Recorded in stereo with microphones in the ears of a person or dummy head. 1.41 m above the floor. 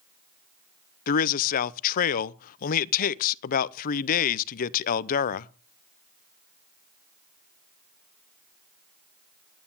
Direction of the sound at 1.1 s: 45° left (ahead or behind).